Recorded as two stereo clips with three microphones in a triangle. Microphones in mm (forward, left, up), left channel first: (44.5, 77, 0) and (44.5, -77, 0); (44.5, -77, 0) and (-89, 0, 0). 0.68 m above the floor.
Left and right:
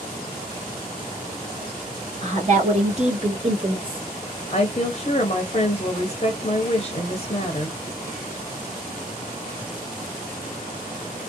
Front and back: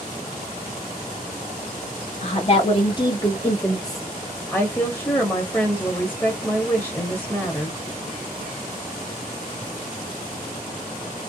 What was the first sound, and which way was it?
A woman speaking, 60° right.